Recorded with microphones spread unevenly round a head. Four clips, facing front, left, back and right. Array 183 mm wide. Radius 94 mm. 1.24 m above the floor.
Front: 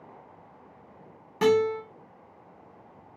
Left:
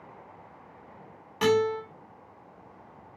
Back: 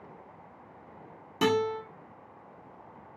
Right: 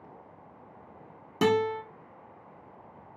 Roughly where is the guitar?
Right.